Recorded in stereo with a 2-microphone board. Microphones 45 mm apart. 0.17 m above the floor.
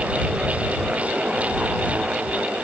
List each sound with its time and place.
Only background noise.